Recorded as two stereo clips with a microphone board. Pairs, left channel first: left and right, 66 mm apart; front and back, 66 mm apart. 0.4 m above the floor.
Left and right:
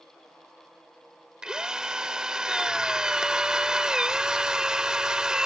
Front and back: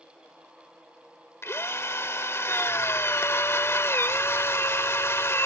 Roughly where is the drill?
Ahead.